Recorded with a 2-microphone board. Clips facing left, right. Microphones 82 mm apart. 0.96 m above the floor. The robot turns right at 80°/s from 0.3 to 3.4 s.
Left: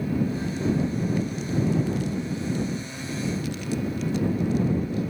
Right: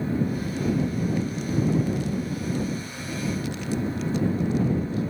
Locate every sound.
Only background noise.